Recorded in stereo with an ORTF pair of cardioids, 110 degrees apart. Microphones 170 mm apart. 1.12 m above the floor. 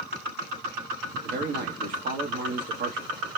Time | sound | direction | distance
1.2 | a man speaking | 65° right | 1.1 m